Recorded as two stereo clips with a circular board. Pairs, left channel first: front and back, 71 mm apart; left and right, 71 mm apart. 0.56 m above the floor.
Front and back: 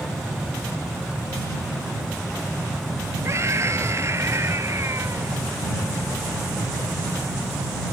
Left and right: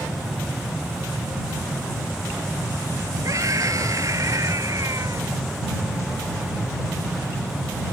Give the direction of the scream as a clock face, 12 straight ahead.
4 o'clock.